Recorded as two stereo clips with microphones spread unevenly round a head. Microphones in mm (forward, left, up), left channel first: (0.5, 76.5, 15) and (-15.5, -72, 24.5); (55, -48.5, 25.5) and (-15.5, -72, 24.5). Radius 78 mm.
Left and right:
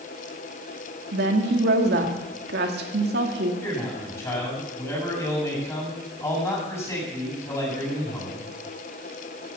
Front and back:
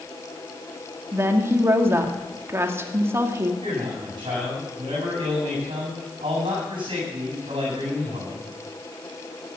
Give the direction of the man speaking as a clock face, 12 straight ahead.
7 o'clock.